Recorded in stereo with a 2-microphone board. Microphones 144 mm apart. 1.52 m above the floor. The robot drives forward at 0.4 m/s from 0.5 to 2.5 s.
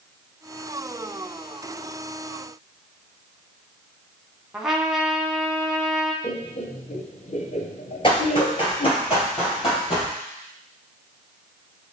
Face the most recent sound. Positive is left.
turn(degrees=45)  # may be behind; listen again after turning